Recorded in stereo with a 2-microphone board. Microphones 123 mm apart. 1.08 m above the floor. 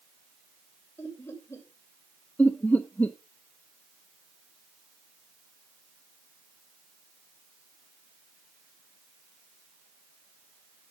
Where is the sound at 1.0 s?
20° left (ahead or behind), 5.5 m.